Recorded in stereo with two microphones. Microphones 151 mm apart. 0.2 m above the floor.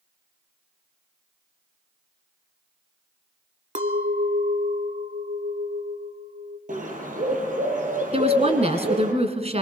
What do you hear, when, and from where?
3.8 s a clink: 55° right (ahead or behind), 1.1 m
6.7 s a bird: 60° right (ahead or behind), 4 m
8.1 s a woman speaking: 45° right (ahead or behind), 2 m